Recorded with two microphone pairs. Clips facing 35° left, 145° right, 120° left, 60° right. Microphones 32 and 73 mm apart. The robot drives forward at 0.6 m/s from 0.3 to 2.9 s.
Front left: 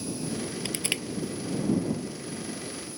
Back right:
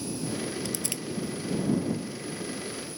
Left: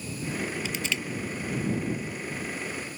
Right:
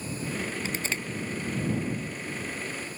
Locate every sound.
0.7 s crushing: 10° right